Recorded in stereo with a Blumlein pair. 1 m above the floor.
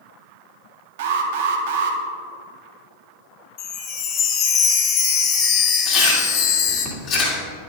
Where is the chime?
35° left, 1.1 m.